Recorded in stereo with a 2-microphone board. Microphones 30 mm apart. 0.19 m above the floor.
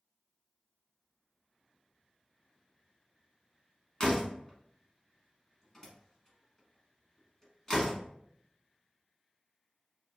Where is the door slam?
20° left (ahead or behind), 1.3 m.